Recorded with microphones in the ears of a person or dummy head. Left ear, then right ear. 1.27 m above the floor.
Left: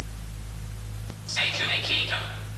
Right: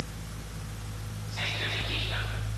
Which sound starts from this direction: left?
Whispering, at 1.3 s.